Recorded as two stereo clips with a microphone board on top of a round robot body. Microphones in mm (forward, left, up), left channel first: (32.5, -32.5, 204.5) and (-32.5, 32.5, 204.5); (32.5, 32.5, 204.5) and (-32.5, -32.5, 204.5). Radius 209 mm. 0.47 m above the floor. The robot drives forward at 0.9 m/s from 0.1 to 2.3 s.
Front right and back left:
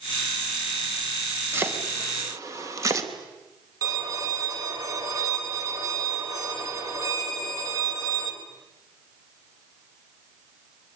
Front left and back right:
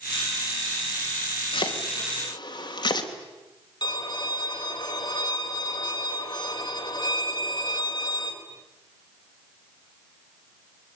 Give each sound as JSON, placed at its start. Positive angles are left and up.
{"t": 1.5, "sound": "chopping", "azimuth_deg": 70, "distance_m": 3.5}
{"t": 3.8, "sound": "a violin", "azimuth_deg": 85, "distance_m": 4.5}